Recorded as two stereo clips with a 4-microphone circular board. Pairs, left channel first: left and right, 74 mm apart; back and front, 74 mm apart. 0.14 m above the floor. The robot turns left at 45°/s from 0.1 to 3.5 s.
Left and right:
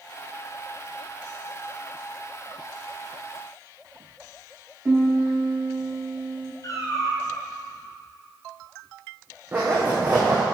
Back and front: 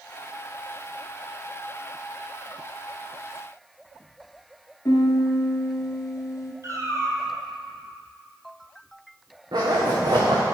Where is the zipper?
25° right, 2 m.